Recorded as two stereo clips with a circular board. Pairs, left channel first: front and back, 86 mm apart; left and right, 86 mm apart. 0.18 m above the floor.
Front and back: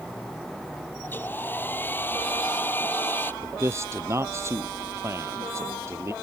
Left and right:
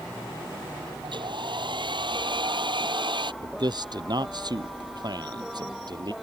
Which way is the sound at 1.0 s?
65° right.